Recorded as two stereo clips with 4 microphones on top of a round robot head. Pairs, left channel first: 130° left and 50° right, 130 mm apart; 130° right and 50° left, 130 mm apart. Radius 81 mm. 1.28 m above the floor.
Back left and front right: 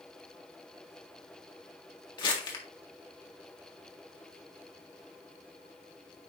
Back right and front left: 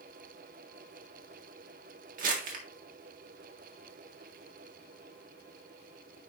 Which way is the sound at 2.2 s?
75° left.